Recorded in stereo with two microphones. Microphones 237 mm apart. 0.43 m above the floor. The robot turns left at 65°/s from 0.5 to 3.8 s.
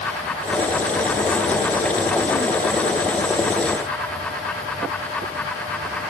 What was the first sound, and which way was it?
Only background noise.